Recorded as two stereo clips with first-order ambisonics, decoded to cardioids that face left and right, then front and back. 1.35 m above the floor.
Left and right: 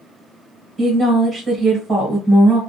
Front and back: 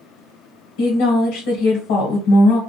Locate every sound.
0.8 s a woman speaking: 5° right, 1.1 m